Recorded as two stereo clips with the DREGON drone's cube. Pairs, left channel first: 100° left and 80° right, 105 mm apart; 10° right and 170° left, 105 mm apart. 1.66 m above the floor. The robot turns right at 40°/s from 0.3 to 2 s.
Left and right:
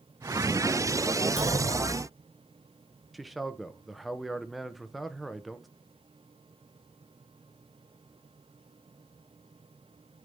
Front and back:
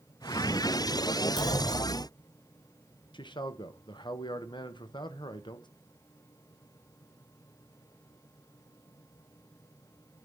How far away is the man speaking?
About 0.7 m.